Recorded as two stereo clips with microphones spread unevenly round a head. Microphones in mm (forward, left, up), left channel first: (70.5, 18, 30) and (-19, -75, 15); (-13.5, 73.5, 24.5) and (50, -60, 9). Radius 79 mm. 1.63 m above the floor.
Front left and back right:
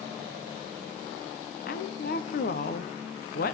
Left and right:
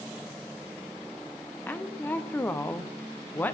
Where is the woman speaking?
40° left, 0.8 m.